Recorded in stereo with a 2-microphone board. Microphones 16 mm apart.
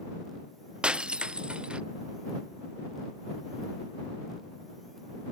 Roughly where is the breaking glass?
Right.